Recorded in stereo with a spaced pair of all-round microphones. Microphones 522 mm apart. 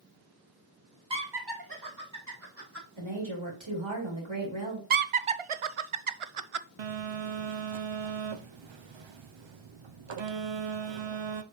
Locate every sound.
1.1 s laughter: 60° right (ahead or behind), 1.8 m; by 2.9 s 25° right (ahead or behind), 3 m
3.0 s a woman speaking: 65° right (ahead or behind), 3 m
4.9 s laughter: 80° right, 0.6 m
6.8 s a phone buzzing: 65° right (ahead or behind), 0.6 m